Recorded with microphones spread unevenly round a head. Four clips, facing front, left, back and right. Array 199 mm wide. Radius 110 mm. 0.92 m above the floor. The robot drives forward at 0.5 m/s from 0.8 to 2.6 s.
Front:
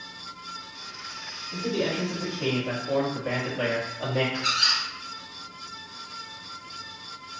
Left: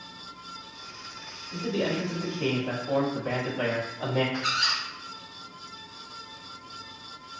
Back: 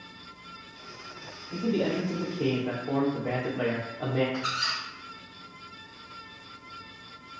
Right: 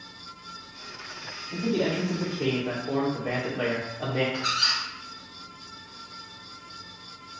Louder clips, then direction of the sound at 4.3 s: Even, front 3 dB; 165° right.